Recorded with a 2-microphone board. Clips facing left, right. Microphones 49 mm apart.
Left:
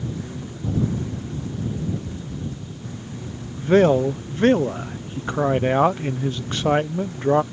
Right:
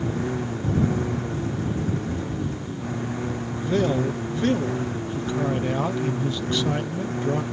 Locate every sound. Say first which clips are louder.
0.0 s a lawn mower: right 5 dB; 50° right (ahead or behind)
2.0 s breathing: right 4 dB; 50° right (ahead or behind)
3.6 s a man speaking: left 7 dB; 45° left (ahead or behind)